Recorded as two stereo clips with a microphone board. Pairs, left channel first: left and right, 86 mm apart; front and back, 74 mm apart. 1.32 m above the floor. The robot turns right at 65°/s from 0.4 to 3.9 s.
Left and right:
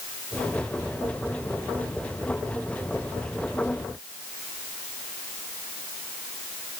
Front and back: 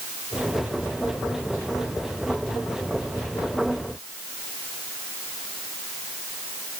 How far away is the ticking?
I don't hear ticking.